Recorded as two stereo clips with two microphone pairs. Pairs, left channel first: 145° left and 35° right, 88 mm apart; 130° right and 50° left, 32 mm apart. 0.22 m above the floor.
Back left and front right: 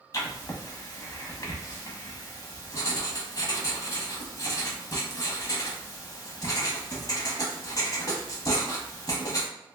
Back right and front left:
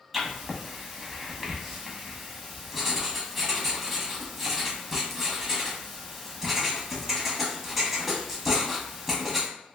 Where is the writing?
130° left, 0.8 m.